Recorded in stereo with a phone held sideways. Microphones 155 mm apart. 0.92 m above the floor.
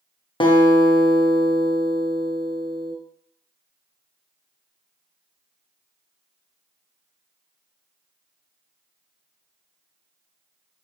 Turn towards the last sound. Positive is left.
turn(degrees=35)  # may be behind; listen again after turning